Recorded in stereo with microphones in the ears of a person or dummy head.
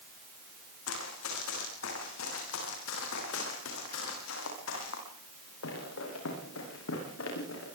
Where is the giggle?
No giggle in this recording.